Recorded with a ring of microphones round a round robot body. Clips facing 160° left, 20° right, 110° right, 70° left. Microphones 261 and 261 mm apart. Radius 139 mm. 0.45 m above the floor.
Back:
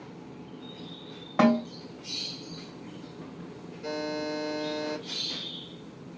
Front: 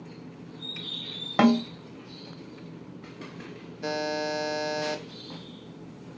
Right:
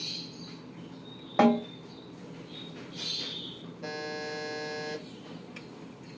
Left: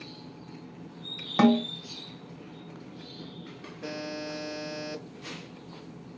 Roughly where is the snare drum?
Ahead.